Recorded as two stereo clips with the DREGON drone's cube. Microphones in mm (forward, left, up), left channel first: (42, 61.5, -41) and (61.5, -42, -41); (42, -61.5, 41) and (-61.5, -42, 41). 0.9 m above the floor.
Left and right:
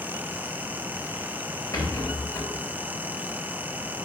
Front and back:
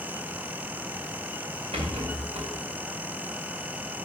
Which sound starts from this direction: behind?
A rattle, at 1.7 s.